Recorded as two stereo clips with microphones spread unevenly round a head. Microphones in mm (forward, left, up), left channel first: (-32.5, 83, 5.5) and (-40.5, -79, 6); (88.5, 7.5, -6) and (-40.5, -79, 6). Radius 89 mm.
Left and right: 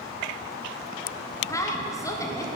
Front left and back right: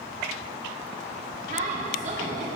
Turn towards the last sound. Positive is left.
turn(degrees=160)